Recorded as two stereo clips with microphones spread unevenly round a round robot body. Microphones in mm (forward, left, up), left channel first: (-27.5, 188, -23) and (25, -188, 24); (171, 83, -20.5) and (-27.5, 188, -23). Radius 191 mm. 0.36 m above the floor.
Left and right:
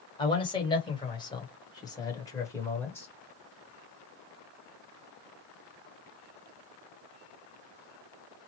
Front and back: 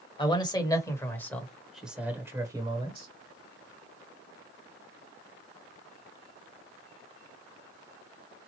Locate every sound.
0.2 s a man speaking: 35° left, 1.8 m; by 3.1 s 160° left, 1.4 m